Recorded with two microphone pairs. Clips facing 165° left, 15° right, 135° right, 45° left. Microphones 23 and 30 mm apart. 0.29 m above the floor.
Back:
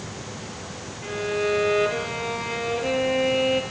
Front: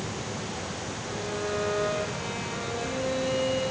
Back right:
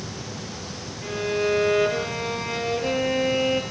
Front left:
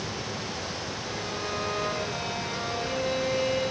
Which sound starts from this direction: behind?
A violin, at 1.0 s.